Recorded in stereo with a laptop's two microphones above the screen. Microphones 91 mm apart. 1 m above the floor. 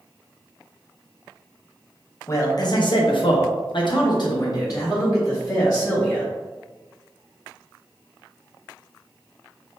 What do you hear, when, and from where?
2.3 s a man speaking: 35° left (ahead or behind), 0.7 m